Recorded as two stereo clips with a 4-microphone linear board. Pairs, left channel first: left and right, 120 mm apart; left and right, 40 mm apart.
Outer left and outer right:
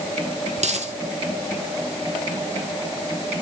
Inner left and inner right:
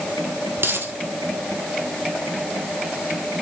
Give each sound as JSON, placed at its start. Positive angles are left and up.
{"t": 0.6, "sound": "a dropped coin", "side_deg": -70, "distance_m": 2.0}